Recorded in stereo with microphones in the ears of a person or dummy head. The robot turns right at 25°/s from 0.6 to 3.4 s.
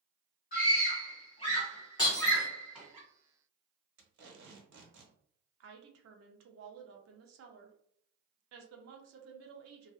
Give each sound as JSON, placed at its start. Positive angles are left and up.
{"t": 0.5, "sound": "a scream", "side_deg": 50, "distance_m": 1.8}
{"t": 2.0, "sound": "breaking glass", "side_deg": 25, "distance_m": 1.0}
{"t": 4.0, "sound": "tape being pulled", "side_deg": -80, "distance_m": 1.1}
{"t": 5.6, "sound": "a woman speaking", "side_deg": -75, "distance_m": 0.7}